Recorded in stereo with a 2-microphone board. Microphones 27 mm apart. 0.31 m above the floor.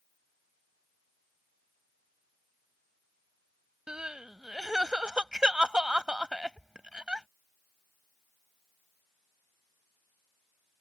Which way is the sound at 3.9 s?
35° right (ahead or behind).